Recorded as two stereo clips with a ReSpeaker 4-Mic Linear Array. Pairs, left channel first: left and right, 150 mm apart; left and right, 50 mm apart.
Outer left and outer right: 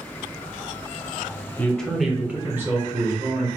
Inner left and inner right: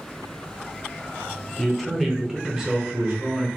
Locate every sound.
1.6 s a man speaking: 10° left (ahead or behind), 0.6 m; by 3.5 s 25° right (ahead or behind), 1.3 m